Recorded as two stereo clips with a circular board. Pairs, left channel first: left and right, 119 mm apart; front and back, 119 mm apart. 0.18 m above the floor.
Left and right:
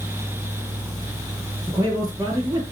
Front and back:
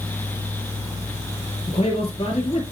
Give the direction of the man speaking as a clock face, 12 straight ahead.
1 o'clock.